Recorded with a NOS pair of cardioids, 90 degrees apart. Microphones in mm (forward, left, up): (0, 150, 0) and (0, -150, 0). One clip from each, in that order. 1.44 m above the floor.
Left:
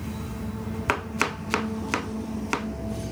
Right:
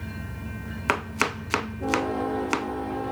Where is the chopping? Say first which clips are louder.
Right 1 dB; 5° right, 0.5 m.